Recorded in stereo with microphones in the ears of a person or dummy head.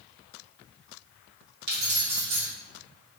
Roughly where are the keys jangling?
Right.